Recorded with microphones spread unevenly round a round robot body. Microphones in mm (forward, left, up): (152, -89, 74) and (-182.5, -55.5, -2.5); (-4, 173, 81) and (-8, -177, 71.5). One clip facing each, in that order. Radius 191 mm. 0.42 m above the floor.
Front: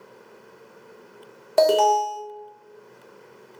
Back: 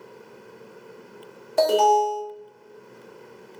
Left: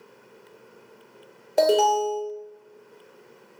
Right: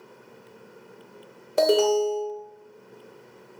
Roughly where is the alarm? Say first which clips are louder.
Even, right 1 dB; ahead.